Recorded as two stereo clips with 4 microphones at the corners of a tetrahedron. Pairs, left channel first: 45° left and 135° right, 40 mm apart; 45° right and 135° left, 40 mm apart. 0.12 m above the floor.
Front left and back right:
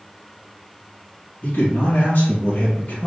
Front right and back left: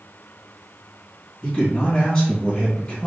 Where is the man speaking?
25° left, 1.8 m.